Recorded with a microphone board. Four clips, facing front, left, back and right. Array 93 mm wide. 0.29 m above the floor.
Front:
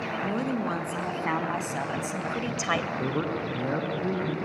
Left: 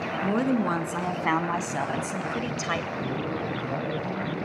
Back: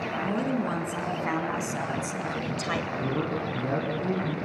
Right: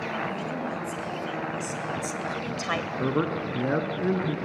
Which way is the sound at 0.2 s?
80° left.